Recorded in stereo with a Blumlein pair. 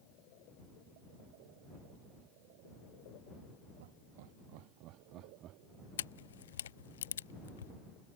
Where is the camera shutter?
65° left.